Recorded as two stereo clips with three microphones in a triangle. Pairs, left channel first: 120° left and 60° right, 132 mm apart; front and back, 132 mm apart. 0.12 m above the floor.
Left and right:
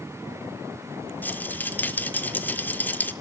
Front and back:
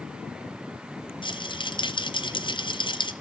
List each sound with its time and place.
1.2 s a rattle: 45° left, 0.9 m